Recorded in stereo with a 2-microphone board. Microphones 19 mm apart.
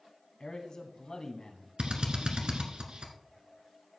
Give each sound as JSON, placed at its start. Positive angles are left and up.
{"t": 0.4, "sound": "a man speaking", "side_deg": 50, "distance_m": 1.4}
{"t": 1.8, "sound": "a drill", "side_deg": -70, "distance_m": 1.6}